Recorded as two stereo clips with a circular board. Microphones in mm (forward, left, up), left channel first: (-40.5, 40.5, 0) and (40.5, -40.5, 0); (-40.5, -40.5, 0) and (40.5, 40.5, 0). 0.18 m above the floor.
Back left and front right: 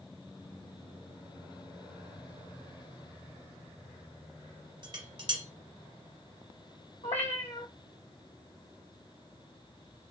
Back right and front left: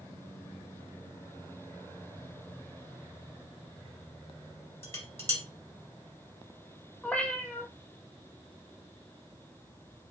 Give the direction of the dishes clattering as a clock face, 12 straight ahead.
2 o'clock.